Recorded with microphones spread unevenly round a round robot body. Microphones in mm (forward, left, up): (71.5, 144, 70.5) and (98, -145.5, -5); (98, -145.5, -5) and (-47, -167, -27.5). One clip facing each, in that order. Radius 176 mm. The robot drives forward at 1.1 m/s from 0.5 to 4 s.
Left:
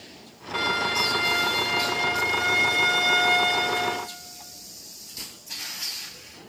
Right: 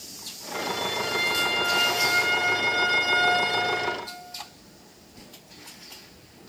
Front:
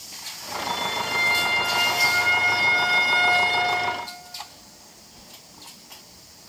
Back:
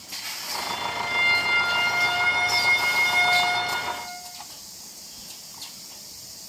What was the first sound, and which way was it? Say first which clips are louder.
A violin: left 1 dB, front 2 dB; 65° left.